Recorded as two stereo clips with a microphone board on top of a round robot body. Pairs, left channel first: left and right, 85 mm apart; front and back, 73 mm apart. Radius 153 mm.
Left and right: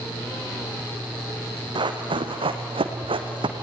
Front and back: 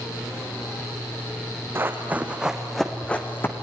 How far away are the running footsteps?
About 2 m.